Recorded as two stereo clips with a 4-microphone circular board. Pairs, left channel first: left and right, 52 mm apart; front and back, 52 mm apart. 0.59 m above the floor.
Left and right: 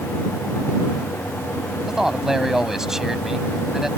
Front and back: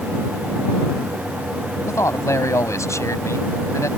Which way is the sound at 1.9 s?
5° right.